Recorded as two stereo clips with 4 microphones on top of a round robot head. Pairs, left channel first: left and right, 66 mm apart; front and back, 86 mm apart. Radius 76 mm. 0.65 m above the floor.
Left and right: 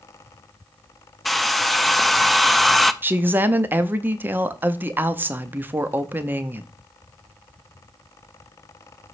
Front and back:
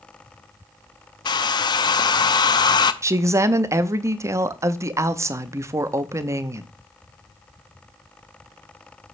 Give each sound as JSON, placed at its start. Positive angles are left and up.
{"t": 1.2, "sound": "a hair dryer", "azimuth_deg": 0, "distance_m": 0.6}
{"t": 3.0, "sound": "a woman speaking", "azimuth_deg": -140, "distance_m": 0.7}